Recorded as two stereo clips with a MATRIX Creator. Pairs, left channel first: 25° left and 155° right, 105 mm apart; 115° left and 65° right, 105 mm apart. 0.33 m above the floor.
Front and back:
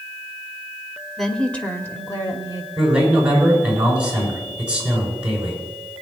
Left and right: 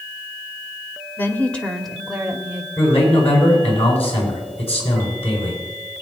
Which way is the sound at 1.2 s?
110° left.